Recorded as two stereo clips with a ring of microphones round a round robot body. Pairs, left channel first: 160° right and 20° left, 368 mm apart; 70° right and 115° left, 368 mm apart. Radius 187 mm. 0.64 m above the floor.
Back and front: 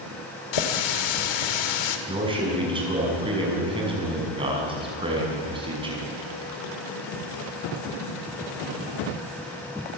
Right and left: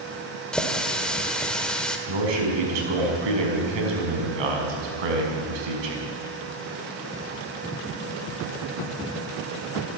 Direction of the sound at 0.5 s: 155° right.